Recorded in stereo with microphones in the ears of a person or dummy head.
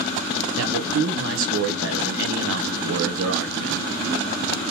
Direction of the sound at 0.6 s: 70° right (ahead or behind).